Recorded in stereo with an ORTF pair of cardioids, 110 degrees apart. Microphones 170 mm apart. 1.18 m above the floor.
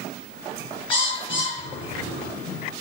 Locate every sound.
0.9 s a bird: 30° left, 1.0 m